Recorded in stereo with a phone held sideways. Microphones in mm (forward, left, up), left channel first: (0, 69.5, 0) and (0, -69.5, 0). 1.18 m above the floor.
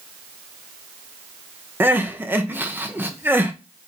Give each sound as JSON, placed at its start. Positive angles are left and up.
{"t": 1.8, "sound": "crying", "side_deg": -15, "distance_m": 1.1}